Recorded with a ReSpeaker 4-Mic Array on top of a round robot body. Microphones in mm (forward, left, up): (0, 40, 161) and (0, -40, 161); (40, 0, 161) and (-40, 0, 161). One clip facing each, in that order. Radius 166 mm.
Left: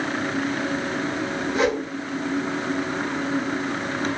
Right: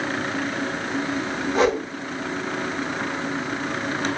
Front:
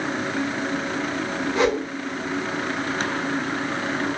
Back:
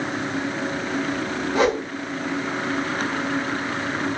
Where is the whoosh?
135° right, 2 m.